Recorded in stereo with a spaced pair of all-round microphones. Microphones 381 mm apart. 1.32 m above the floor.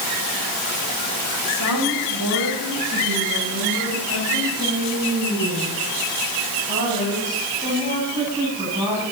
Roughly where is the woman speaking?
Right.